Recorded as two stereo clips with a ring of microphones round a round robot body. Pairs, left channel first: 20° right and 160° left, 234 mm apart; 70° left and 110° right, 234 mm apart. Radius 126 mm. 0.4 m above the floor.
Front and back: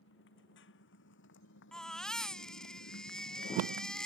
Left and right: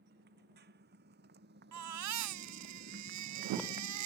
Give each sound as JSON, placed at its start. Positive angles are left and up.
{"t": 0.0, "sound": "a motorcycle", "azimuth_deg": -65}
{"t": 1.7, "sound": "a baby crying", "azimuth_deg": -110}